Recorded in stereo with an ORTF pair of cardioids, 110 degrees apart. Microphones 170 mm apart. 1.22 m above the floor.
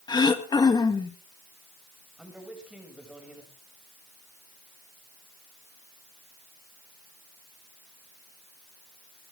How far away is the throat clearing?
About 1.5 m.